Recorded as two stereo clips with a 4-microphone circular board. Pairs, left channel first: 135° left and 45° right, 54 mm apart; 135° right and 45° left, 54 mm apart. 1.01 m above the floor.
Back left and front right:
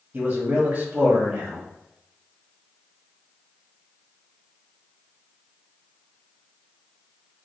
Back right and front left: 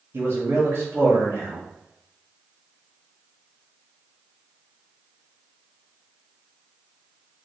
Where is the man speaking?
10° left, 1.4 m.